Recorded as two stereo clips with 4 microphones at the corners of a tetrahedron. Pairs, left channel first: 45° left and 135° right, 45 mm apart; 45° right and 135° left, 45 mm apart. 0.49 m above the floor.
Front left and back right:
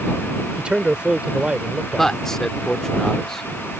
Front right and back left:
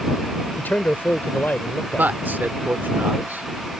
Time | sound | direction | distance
0.6 | a man speaking | 75° right | ?
2.0 | a man speaking | 120° left | ?